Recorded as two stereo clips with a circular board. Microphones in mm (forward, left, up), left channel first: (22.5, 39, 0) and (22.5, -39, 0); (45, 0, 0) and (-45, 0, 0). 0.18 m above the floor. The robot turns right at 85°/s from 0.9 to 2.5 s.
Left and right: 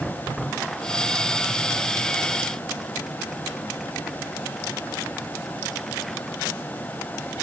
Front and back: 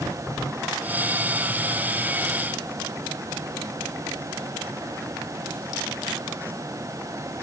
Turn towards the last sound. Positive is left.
No sound to turn to.